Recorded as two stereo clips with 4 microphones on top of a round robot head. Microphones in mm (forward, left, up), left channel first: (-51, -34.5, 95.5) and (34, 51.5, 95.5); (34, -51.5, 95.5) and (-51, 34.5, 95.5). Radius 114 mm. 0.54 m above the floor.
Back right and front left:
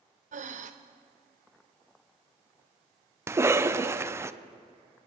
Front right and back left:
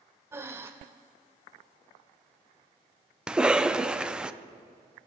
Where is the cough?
65° left, 0.8 m.